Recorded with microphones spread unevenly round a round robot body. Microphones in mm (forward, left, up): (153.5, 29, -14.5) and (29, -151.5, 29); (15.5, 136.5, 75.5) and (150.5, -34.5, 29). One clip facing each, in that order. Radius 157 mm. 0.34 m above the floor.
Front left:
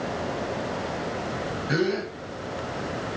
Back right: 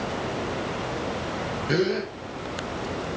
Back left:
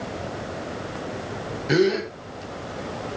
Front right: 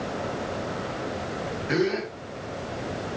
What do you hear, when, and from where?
1.7 s a gasp: 170° left, 1.6 m